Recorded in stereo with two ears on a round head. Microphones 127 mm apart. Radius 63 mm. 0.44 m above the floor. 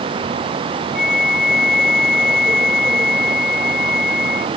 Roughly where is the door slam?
No door slam in this recording.